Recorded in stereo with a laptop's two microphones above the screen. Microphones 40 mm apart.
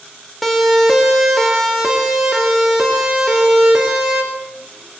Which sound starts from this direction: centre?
A siren, at 0.4 s.